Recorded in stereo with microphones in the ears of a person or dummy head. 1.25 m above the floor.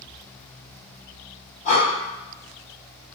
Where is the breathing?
35° left (ahead or behind), 0.9 m.